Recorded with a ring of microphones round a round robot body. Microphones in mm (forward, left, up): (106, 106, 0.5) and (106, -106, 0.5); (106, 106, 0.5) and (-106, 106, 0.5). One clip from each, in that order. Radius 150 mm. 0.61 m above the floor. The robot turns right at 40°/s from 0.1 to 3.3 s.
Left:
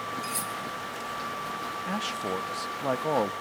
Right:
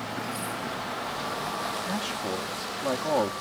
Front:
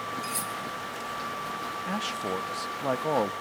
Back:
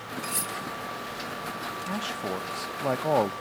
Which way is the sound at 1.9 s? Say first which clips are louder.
Even, front 1 dB; 50° left.